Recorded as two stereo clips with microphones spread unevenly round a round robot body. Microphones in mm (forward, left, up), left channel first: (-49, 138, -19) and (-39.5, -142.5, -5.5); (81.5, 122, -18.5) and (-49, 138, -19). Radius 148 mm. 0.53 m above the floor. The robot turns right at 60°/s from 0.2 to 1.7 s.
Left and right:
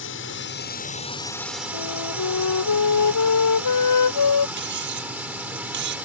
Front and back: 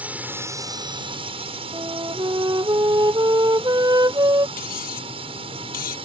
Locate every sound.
0.0 s a drone: 100° left; by 6.1 s 170° right
1.7 s a flute: 115° left
4.6 s cutlery clinking: 30° right